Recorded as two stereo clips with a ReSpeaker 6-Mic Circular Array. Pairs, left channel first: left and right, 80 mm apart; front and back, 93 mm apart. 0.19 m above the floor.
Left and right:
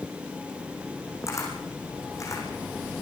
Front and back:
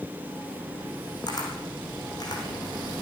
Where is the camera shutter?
40° left, 7 m.